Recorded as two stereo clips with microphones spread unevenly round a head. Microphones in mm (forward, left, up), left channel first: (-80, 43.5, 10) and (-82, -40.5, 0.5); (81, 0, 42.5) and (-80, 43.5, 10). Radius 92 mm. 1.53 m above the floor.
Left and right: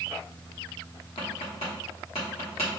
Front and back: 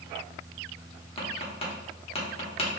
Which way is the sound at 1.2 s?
45° left.